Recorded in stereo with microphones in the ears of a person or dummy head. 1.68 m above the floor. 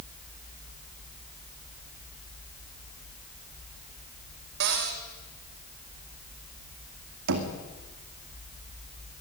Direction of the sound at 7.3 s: 60° right (ahead or behind).